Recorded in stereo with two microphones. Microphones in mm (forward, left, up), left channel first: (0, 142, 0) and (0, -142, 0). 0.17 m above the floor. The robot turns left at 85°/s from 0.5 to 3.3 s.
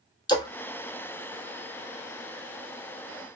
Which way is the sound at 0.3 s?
15° left (ahead or behind).